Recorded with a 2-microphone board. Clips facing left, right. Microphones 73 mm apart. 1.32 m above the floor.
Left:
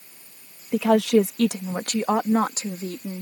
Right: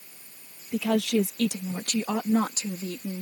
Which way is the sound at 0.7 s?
80° left.